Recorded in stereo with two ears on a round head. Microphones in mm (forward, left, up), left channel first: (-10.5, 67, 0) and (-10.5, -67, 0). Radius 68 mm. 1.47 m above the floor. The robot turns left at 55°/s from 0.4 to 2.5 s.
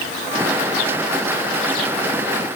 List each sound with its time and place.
Only background noise.